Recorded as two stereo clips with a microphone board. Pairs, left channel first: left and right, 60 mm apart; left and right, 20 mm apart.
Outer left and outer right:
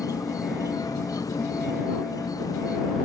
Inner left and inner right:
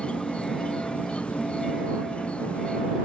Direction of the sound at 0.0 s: 85° left.